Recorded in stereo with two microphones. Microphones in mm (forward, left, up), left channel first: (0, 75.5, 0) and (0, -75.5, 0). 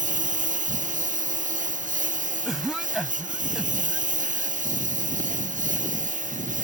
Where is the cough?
Centre (ahead or behind).